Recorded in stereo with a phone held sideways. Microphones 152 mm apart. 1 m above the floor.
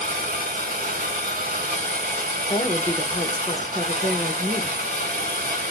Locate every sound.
0.0 s a machine running: 65° right (ahead or behind), 1.1 m
2.5 s a woman speaking: 25° left (ahead or behind), 0.8 m